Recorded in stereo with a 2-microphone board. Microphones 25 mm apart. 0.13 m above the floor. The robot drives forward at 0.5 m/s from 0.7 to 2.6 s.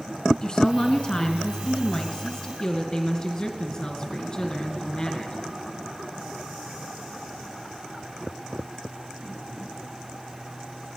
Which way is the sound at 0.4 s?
35° left (ahead or behind).